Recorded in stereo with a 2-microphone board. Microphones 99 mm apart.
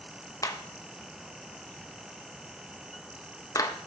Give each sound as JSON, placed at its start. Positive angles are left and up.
{"t": 0.4, "sound": "a clap", "side_deg": 35, "distance_m": 0.7}